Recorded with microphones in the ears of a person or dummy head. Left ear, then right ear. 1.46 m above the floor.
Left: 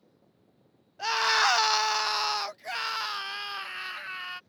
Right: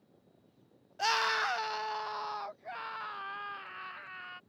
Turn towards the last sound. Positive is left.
turn(degrees=85)